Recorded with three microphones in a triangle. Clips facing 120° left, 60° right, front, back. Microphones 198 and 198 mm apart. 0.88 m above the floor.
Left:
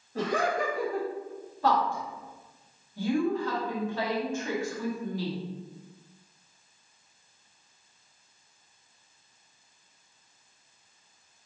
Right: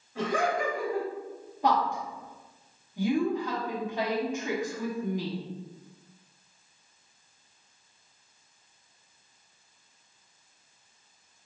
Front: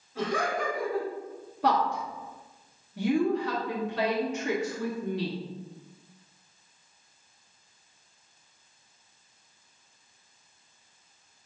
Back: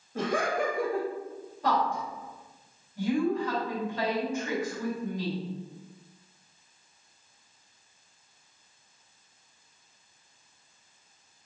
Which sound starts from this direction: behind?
Laughter, at 0.1 s.